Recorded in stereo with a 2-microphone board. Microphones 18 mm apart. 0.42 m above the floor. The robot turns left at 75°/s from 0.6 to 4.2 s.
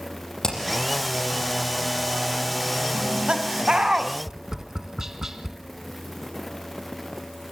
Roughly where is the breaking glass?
No breaking glass in this recording.